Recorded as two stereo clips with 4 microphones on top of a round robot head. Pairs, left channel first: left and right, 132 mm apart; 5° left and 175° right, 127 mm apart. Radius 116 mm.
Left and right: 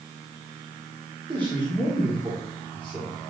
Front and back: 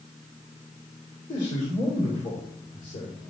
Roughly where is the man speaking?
Ahead right.